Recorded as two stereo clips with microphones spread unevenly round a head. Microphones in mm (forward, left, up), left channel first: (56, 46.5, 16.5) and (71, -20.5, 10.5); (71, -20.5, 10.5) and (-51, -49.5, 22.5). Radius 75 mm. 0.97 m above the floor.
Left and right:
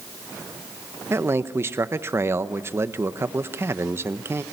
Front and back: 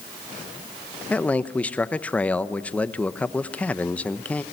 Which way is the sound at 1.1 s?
55° right.